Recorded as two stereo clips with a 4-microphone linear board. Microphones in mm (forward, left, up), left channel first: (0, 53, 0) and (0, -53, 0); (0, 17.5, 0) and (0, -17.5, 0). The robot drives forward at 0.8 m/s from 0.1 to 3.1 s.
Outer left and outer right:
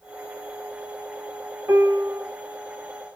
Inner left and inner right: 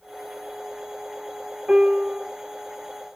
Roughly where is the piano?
Right.